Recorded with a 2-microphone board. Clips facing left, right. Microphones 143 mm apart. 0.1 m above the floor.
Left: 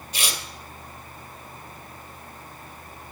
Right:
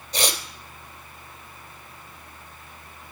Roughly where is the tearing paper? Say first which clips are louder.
Right 6 dB; right.